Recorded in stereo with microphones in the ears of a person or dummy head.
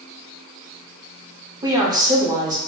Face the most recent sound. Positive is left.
turn(degrees=-15)  # may be behind; listen again after turning